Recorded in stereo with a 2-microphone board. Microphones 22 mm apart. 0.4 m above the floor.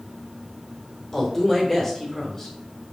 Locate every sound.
1.1 s a woman speaking: 15° left (ahead or behind), 1.0 m